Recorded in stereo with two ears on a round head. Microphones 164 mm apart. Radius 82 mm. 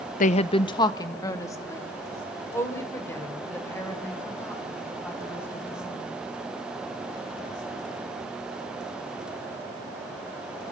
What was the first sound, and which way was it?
A woman speaking, 45° left (ahead or behind).